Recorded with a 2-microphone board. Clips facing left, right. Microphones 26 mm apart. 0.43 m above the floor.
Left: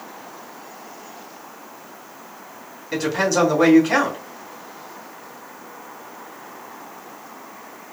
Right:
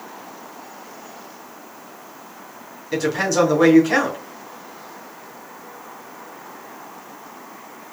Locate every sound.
2.9 s a woman speaking: 10° left (ahead or behind), 3 m